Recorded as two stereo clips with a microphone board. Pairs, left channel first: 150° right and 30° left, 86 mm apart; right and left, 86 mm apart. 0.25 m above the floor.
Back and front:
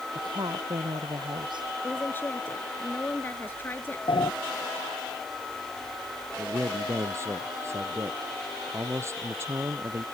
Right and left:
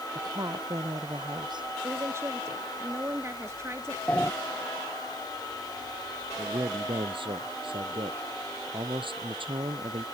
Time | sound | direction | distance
0.1 | a woman speaking | 60° left | ?
1.8 | a woman speaking | 145° left | ?
4.1 | a sliding door | 165° right | ?
6.4 | a man speaking | 90° left | ?